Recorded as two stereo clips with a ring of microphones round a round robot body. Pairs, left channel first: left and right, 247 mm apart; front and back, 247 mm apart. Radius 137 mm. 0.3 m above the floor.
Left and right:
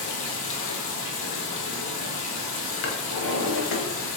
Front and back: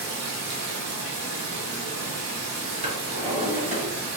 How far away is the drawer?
About 1.1 m.